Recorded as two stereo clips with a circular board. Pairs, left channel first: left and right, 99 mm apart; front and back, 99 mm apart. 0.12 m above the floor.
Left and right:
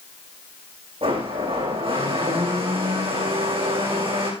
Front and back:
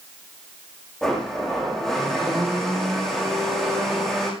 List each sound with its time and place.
1.0 s a blender: 85° right, 7 m